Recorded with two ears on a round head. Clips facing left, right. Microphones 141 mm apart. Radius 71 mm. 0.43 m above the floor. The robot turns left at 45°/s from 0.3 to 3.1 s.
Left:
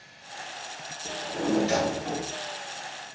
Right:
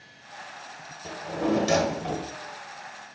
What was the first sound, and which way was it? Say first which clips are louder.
A drawer: right 2 dB; 30° right.